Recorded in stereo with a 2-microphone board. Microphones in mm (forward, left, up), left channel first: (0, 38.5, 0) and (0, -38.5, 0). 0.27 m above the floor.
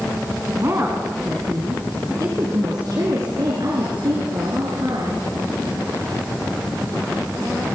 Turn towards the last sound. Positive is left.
turn(degrees=-65)  # may be behind; listen again after turning